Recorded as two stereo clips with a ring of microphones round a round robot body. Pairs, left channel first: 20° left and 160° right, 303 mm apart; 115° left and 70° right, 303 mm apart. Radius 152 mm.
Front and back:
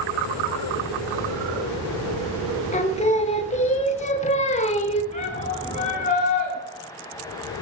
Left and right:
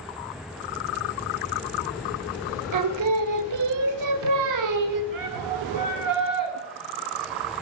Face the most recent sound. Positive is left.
turn(degrees=-45)